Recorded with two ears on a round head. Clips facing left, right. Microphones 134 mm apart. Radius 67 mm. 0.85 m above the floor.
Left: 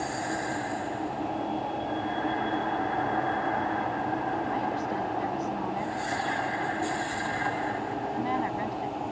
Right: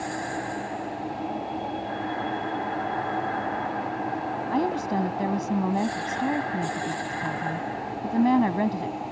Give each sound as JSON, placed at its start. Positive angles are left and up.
{"t": 4.5, "sound": "a woman speaking", "side_deg": -65}